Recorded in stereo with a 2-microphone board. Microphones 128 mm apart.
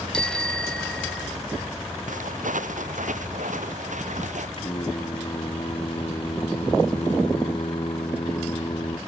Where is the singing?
45° left (ahead or behind).